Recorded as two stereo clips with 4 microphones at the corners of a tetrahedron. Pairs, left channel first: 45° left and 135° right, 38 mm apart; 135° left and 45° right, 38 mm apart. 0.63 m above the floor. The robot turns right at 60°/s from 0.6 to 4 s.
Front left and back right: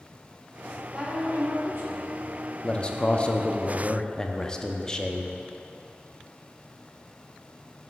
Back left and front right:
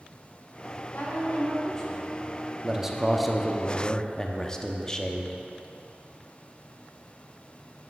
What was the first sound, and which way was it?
A woman speaking, 155° left.